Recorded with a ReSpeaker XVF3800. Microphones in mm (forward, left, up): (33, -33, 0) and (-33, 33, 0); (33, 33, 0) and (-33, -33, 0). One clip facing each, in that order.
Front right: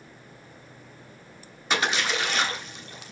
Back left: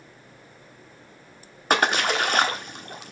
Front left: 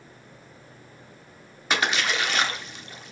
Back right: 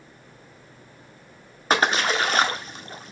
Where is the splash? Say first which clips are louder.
Back left 5 dB, back right 4 dB; 175° left, 0.9 m.